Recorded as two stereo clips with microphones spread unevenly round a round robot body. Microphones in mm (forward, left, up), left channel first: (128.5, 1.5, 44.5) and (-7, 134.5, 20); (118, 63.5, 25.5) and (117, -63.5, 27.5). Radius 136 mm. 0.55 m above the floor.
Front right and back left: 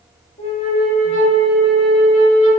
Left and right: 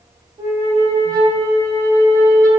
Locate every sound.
0.4 s a flute: 75° right, 0.6 m